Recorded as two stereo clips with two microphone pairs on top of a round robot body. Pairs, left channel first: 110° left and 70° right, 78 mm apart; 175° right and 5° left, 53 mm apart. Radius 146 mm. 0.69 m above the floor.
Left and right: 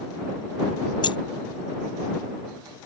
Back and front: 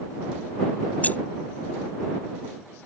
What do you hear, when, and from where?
1.0 s keys jangling: 125° left